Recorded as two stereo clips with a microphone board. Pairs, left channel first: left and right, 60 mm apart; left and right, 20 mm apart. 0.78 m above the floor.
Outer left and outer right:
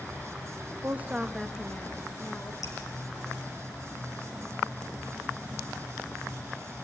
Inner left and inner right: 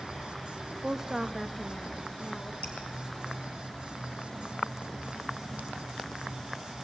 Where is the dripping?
75° left (ahead or behind), 4 m.